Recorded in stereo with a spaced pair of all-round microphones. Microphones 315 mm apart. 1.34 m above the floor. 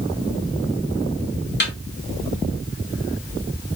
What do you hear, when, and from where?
1.6 s a snare drum: 30° left (ahead or behind), 1.2 m